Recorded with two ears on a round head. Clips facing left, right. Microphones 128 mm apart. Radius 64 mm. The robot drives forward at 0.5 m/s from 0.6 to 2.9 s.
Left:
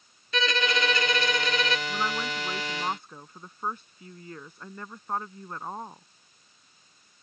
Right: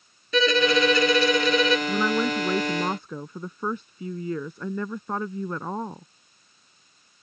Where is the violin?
80° right; by 1.8 s 90° right.